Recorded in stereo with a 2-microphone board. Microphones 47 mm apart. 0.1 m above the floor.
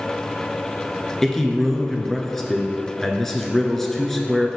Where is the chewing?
No chewing in this recording.